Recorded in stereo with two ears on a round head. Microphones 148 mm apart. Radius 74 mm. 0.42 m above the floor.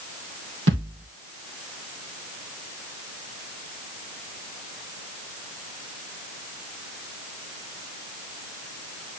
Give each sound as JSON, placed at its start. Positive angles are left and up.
{"t": 0.7, "sound": "a thud", "side_deg": -85, "distance_m": 3.0}